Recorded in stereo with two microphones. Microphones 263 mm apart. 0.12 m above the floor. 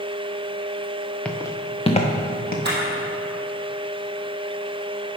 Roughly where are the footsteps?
Centre.